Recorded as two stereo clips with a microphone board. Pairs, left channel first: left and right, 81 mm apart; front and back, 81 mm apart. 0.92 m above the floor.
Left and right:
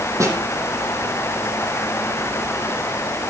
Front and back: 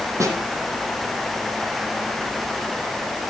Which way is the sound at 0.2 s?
135° right.